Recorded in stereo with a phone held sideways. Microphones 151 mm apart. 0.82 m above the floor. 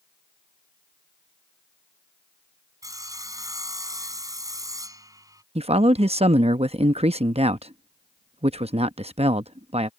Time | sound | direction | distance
2.8 | sawing | 25° right (ahead or behind) | ?
5.5 | a man speaking | 40° right (ahead or behind) | ?